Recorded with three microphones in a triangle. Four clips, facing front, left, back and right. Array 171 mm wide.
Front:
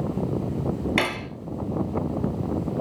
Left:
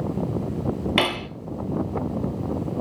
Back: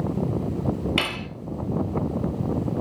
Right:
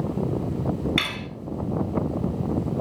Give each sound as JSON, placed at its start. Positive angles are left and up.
{"t": 1.0, "sound": "cutlery clinking", "azimuth_deg": 70, "distance_m": 1.6}